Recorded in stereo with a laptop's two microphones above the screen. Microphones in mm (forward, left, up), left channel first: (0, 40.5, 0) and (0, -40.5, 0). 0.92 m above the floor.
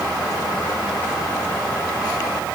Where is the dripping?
I don't hear dripping.